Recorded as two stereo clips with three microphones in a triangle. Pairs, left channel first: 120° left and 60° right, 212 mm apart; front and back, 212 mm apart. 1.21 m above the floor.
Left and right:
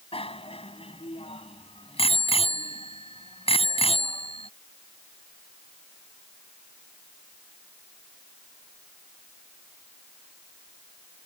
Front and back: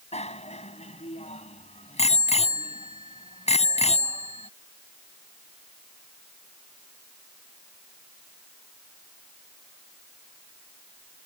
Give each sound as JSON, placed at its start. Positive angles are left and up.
{"t": 0.1, "sound": "a bicycle bell", "azimuth_deg": 60}